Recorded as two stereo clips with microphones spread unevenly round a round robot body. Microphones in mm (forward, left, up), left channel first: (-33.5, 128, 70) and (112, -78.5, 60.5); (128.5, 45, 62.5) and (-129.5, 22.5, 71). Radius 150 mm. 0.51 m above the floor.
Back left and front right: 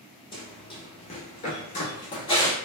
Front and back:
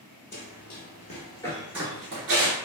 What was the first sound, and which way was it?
Running footsteps, 55° left.